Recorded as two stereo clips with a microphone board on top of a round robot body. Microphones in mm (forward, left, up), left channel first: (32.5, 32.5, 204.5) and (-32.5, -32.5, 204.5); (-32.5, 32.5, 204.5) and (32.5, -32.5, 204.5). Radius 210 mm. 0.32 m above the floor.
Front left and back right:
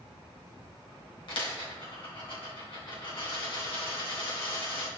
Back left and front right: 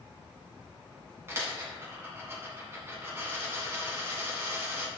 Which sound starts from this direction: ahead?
A dropped coin, at 1.3 s.